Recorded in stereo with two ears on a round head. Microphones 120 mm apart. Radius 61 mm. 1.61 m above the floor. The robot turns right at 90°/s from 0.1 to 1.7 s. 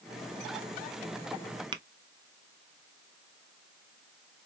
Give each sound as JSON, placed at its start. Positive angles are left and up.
{"t": 1.7, "sound": "tapping", "side_deg": -35, "distance_m": 0.5}